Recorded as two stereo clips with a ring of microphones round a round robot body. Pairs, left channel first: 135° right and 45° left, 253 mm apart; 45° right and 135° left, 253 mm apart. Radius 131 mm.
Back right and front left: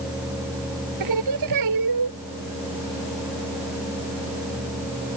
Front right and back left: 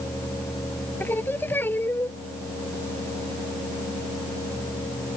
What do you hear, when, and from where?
1.0 s singing: 40° left